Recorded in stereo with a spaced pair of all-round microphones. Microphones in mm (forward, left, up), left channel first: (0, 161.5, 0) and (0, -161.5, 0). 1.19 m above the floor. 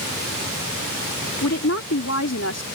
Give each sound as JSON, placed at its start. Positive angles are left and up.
{"t": 1.4, "sound": "a woman speaking", "side_deg": 50}